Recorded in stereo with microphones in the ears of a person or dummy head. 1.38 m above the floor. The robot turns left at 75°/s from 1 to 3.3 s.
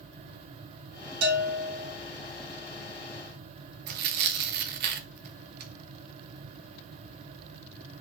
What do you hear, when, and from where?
1.2 s a bell: 95° right, 3 m; by 1.9 s 150° right, 3 m
3.9 s tearing paper: 45° right (ahead or behind), 0.5 m